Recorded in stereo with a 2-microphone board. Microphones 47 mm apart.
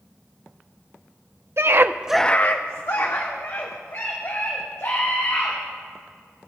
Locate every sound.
1.6 s a scream: 60° right (ahead or behind), 0.9 m; by 5.5 s 75° left (ahead or behind), 5 m